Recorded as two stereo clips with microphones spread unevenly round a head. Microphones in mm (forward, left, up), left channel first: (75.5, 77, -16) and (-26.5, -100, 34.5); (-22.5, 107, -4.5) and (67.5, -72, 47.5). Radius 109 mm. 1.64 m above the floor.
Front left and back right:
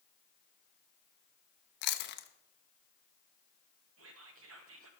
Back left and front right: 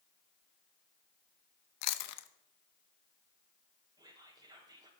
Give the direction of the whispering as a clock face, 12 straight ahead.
4 o'clock.